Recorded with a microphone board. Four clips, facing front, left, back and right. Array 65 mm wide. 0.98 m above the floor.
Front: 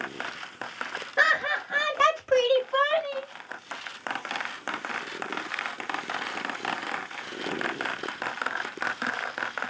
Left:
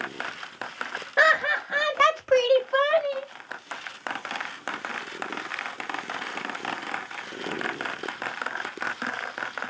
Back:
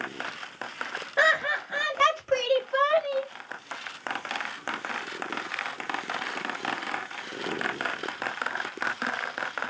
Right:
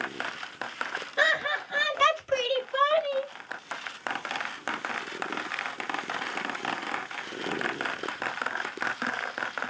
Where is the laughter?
100° left, 1.6 m; by 3.3 s 80° left, 2.5 m.